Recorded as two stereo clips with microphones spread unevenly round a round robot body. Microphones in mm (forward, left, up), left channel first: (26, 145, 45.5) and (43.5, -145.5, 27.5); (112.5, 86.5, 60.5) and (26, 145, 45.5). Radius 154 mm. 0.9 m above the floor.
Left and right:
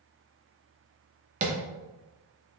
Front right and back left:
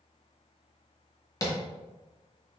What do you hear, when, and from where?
1.4 s tapping: 65° right, 0.8 m